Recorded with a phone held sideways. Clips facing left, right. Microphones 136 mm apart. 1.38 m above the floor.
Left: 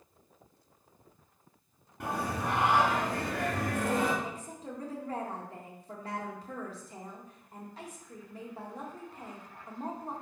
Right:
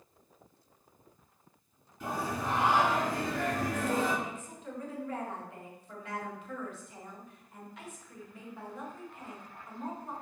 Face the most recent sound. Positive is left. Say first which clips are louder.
# left 1 dB
turn(degrees=35)  # may be behind; listen again after turning